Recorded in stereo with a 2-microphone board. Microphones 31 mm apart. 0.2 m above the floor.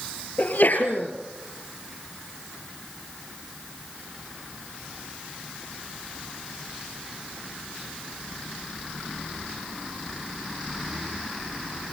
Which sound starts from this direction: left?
A sneeze, at 0.4 s.